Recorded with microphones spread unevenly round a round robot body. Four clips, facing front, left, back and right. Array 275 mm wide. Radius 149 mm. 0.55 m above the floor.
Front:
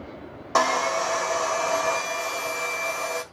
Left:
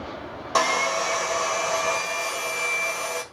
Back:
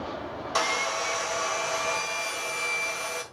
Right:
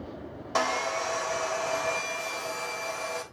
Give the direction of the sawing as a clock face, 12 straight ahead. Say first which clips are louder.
Left 5 dB, front 7 dB; 11 o'clock.